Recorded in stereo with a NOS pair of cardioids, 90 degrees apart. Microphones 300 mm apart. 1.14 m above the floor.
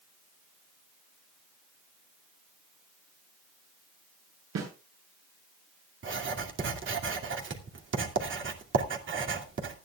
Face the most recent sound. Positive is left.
turn(degrees=-40)